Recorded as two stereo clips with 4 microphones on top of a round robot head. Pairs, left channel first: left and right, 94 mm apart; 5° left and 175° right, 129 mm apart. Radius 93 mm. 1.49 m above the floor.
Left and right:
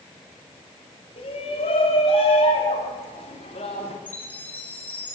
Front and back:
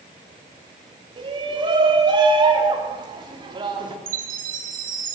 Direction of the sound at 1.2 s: 130° left.